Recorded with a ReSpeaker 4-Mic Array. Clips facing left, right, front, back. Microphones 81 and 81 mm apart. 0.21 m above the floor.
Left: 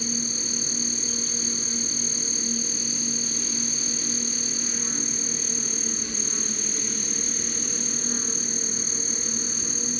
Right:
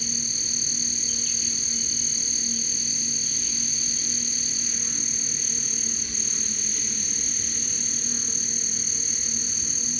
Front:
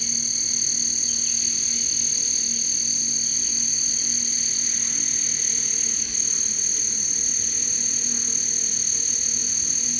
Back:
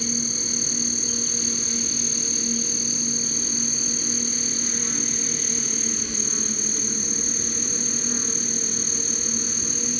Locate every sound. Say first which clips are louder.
0.0 s an insect: left 6 dB, back 9 dB; 140° left, 0.9 m